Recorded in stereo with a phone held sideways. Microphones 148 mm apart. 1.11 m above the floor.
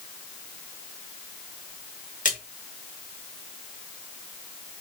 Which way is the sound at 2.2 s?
60° left (ahead or behind).